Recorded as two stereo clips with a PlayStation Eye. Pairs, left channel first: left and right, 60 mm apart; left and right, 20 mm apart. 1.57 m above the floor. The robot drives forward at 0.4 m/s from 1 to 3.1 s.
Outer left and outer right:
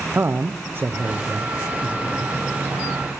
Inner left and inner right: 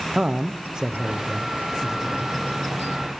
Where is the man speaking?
40° right (ahead or behind), 0.6 m; by 2.4 s 20° right (ahead or behind), 1.1 m.